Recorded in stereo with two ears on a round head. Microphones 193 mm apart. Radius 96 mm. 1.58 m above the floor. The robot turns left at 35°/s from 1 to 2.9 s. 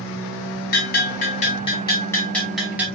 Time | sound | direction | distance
0.7 | a bell | 55° left | 2.5 m